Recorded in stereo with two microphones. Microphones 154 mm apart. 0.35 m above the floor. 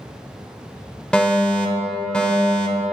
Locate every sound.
1.1 s a fire alarm: 5° left (ahead or behind), 2.5 m